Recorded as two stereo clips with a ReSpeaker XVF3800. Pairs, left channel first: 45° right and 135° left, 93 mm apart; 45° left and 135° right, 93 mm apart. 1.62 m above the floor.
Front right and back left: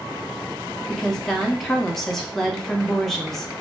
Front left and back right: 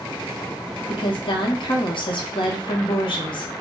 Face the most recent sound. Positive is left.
turn(degrees=40)